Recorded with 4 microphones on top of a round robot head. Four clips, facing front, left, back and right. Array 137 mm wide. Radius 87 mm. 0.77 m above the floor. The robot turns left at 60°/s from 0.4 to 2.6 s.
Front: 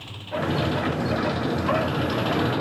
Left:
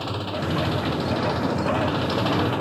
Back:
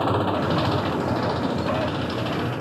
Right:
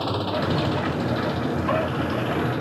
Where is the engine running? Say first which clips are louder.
Right 3 dB, back 8 dB; 165° right; by 2.6 s 65° left.